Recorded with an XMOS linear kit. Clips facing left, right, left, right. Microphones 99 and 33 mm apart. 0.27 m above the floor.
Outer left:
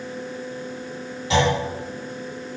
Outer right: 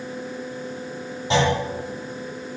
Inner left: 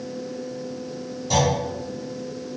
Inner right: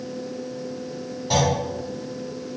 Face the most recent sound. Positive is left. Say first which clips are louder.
# even, even
turn(degrees=-30)  # may be behind; listen again after turning